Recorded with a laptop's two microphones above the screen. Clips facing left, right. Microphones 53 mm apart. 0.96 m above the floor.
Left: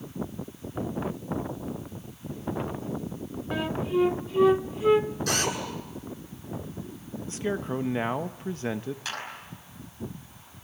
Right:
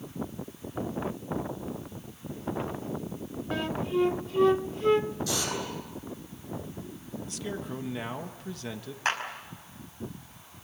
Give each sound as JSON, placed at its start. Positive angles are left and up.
{"t": 3.5, "sound": "a flute", "side_deg": 5, "distance_m": 0.7}
{"t": 5.3, "sound": "a drill", "side_deg": 65, "distance_m": 9.0}
{"t": 7.3, "sound": "a man speaking", "side_deg": 35, "distance_m": 0.8}
{"t": 9.1, "sound": "a clap", "side_deg": -45, "distance_m": 5.5}